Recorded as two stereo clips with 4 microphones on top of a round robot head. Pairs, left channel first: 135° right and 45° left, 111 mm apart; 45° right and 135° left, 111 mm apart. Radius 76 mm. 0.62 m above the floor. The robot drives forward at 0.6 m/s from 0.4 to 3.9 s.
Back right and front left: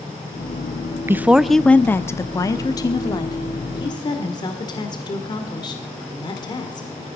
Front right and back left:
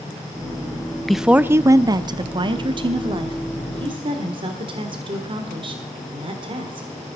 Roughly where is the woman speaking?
Ahead left.